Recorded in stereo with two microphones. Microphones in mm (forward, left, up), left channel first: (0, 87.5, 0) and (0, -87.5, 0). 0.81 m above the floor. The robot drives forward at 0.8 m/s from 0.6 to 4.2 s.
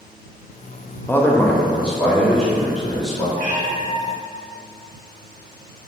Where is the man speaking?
10° left (ahead or behind), 0.5 m; by 3.2 s 5° left (ahead or behind), 2 m.